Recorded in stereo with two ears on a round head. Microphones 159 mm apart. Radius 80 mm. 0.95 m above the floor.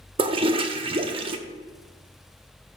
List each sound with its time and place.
0.2 s a toilet flushing: 30° right (ahead or behind), 0.7 m